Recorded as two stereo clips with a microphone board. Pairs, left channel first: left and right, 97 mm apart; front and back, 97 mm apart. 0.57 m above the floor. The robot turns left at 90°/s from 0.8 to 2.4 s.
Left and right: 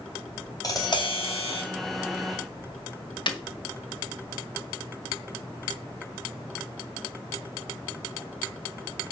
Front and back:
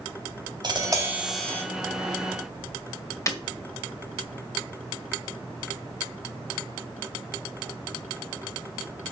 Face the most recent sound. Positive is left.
turn(degrees=55)